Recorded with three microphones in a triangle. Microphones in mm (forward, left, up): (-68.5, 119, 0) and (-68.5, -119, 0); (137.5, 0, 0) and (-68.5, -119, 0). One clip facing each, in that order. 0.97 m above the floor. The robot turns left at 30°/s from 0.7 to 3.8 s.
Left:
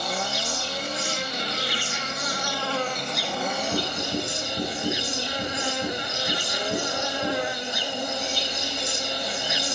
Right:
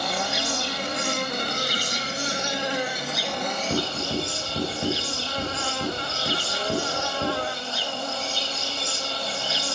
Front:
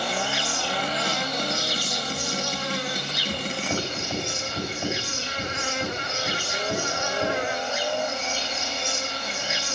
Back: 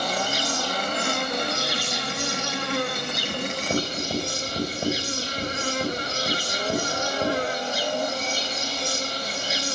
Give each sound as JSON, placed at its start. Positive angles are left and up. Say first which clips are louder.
{"t": 0.0, "sound": "an insect", "louder": "right 2 dB, back 1 dB", "azimuth_deg": -105, "distance_m": 0.9}
{"t": 3.7, "sound": "writing", "louder": "right 1 dB, back 4 dB", "azimuth_deg": -90, "distance_m": 4.5}